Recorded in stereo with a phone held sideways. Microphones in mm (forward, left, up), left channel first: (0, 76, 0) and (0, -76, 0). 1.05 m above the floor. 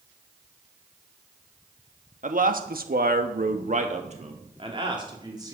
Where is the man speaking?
60° right (ahead or behind), 1.4 m; by 5.5 s 25° right (ahead or behind), 3 m.